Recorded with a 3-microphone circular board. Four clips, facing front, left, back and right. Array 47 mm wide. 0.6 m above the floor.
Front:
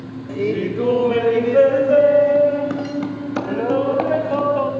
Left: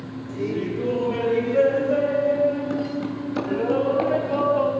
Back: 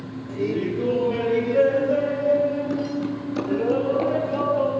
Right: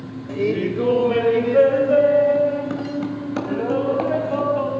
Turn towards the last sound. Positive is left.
turn(degrees=-5)